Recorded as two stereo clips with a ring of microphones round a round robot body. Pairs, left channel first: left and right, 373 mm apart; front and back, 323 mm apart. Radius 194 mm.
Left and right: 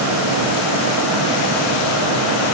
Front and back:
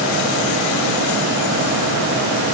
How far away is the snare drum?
I don't hear a snare drum.